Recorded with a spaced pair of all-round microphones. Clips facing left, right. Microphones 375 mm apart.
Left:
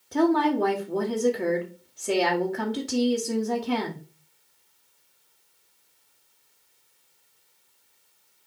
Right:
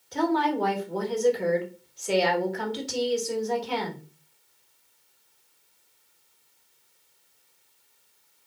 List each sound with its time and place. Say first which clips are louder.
0.1 s a woman speaking: left 4 dB; 65° left (ahead or behind), 2.5 m